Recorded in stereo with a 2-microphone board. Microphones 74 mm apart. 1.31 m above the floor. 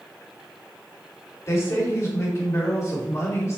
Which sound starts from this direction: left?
A woman speaking, at 1.5 s.